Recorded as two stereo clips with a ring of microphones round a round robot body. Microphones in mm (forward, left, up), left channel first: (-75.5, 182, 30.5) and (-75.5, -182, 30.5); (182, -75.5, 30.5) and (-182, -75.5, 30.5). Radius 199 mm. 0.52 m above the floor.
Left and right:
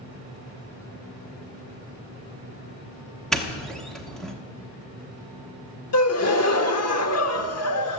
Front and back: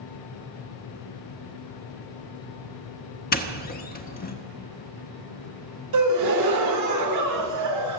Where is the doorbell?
5° left, 1.1 m.